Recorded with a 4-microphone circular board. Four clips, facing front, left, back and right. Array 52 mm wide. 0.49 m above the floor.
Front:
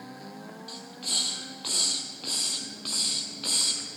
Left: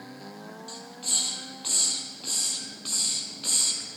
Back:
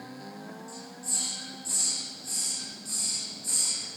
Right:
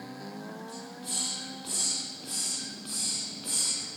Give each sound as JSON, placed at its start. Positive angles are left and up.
{"t": 0.7, "sound": "a hiss", "azimuth_deg": 15, "distance_m": 2.5}